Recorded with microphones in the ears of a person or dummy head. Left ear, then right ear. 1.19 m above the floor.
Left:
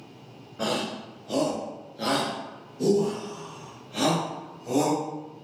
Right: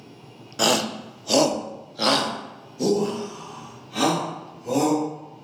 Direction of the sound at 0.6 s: 65° right (ahead or behind).